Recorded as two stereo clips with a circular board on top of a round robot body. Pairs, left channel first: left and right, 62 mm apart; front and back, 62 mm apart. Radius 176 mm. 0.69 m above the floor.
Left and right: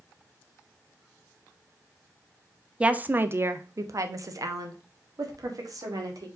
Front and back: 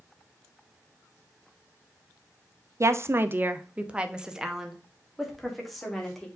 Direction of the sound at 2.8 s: 160° right.